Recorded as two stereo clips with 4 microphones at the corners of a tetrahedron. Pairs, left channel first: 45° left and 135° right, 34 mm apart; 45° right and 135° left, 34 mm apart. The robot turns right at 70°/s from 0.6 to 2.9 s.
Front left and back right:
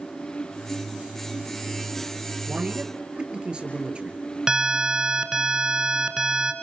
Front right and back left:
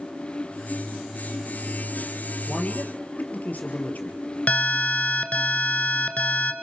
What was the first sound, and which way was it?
A man speaking, 110° right.